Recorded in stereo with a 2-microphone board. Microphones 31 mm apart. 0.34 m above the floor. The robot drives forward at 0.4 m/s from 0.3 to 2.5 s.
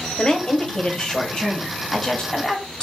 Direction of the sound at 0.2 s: 30° left (ahead or behind).